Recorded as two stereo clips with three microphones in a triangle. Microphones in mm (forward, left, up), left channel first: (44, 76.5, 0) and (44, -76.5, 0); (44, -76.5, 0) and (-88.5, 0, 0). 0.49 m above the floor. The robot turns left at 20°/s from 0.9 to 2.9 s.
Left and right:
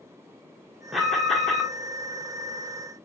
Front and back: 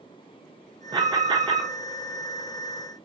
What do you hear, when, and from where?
0.9 s an alarm: 175° right, 0.7 m; by 1.7 s 170° left, 0.7 m